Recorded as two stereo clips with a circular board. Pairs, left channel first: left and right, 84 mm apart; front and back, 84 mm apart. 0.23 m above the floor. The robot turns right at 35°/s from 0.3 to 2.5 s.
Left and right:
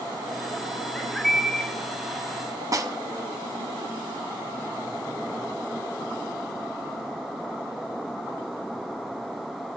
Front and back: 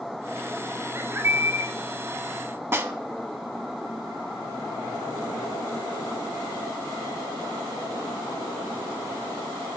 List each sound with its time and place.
0.9 s a bird: 165° left, 1.6 m; by 1.7 s 165° right, 1.6 m
2.7 s a snare drum: 125° right, 0.8 m